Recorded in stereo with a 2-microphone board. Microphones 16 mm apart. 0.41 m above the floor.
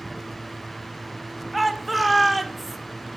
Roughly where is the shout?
Centre.